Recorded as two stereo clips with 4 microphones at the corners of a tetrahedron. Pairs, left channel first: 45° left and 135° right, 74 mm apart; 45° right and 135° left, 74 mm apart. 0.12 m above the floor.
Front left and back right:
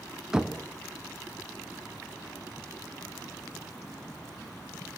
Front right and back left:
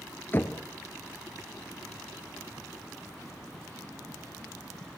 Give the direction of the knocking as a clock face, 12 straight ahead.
2 o'clock.